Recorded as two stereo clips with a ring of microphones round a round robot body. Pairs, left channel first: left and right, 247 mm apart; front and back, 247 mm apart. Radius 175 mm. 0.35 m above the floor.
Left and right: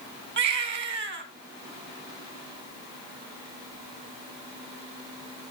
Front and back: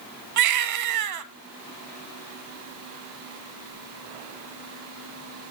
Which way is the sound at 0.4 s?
150° right.